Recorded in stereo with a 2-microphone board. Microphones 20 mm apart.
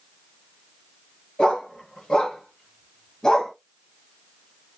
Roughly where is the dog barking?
Left.